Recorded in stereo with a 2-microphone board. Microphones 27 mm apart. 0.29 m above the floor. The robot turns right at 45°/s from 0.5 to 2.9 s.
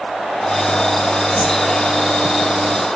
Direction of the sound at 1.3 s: 65° left (ahead or behind).